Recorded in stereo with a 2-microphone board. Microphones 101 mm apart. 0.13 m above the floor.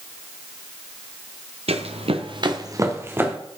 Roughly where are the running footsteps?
Right.